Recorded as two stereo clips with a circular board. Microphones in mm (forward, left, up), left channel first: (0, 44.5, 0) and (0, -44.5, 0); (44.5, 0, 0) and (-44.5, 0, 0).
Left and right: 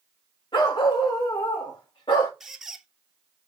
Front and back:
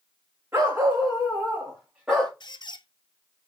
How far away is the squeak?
About 0.5 m.